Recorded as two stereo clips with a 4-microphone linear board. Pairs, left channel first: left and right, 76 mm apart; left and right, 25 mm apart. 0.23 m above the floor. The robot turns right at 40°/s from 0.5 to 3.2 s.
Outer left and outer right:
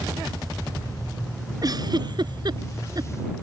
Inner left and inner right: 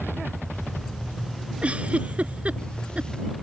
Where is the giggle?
55° right (ahead or behind).